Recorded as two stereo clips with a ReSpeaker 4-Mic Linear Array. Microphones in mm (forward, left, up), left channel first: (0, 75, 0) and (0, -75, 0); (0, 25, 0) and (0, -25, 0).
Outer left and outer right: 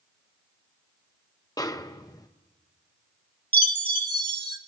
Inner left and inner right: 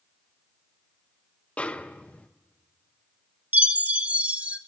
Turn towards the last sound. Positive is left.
turn(degrees=-30)  # may be behind; listen again after turning